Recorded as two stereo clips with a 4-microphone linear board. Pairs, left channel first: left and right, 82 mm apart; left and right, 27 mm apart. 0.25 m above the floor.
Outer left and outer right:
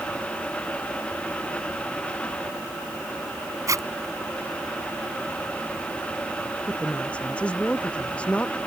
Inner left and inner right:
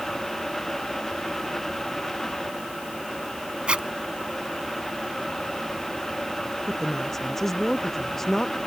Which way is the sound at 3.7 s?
45° right (ahead or behind).